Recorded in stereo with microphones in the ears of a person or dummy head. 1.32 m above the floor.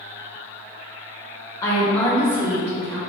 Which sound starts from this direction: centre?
A woman speaking, at 1.6 s.